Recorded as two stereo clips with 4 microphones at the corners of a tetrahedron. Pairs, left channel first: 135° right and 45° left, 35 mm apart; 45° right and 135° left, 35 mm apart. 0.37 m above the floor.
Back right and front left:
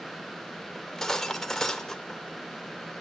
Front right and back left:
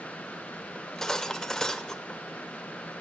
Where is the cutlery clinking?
90° right, 0.6 m.